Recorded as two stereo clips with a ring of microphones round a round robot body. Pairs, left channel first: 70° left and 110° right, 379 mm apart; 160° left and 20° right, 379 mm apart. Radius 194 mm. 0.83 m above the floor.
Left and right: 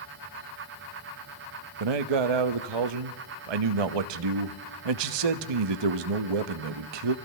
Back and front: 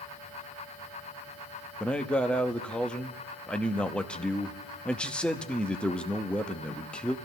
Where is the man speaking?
115° right, 0.9 m.